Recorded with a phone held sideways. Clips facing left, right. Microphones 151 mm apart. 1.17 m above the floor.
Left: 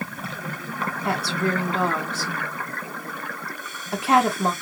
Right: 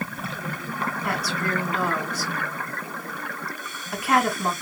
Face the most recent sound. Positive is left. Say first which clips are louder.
# left 6 dB
turn(degrees=30)  # may be behind; listen again after turning